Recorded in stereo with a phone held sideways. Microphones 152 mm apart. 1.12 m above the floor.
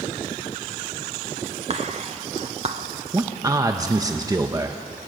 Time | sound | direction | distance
1.7 | whispering | 45° right (ahead or behind) | 1.2 m
3.1 | a man speaking | 25° right (ahead or behind) | 1.0 m